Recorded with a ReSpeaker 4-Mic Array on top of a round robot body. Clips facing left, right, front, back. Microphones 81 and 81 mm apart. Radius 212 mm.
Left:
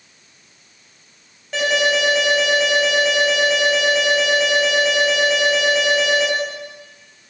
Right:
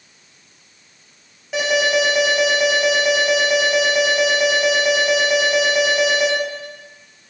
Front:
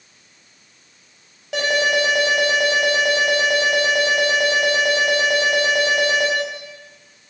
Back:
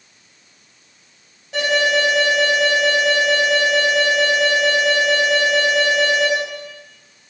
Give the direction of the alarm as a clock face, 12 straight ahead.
12 o'clock.